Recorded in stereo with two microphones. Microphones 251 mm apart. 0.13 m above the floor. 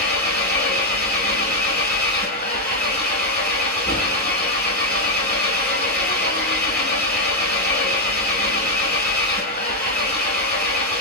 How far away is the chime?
No chime in this recording.